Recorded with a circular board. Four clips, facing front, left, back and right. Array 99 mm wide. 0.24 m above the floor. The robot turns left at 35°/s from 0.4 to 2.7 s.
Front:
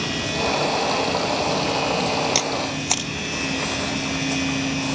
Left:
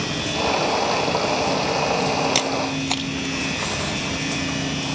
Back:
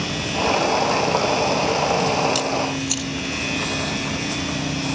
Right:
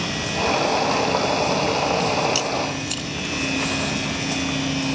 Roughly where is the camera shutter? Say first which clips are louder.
Left 1 dB, back 2 dB; ahead left.